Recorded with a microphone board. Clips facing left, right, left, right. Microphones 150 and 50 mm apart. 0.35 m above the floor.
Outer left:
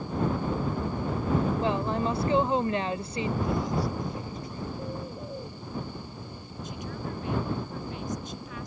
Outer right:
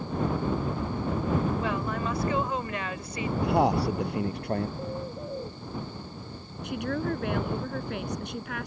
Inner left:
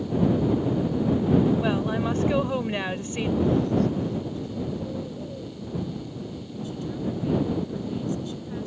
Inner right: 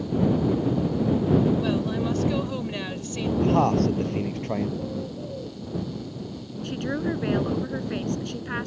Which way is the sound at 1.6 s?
30° left (ahead or behind).